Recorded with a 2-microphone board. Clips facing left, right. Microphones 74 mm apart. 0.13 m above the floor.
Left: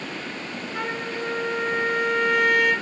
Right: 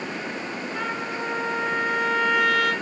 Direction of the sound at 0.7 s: Centre (ahead or behind).